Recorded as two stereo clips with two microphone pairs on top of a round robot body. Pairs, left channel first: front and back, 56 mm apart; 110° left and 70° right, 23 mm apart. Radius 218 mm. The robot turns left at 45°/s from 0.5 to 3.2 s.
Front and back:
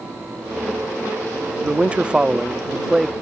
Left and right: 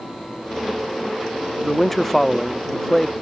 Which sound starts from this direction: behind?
A man speaking, at 1.6 s.